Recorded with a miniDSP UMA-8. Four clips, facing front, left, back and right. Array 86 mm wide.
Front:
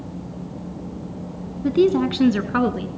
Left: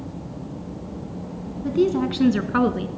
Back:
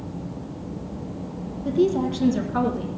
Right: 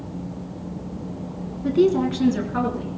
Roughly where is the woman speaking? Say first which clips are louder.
Right 2 dB, front 4 dB; ahead.